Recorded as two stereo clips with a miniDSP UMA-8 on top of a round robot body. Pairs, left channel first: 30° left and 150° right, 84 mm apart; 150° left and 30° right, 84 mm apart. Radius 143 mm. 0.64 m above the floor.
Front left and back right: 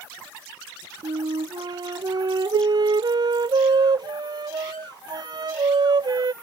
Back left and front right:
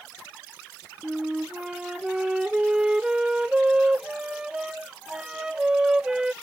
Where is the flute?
110° right.